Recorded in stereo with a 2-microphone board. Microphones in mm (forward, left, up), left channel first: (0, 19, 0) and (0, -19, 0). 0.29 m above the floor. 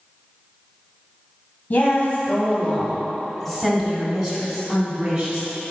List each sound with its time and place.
1.7 s a woman speaking: 40° left (ahead or behind), 1.9 m; by 5.5 s 40° right (ahead or behind), 3 m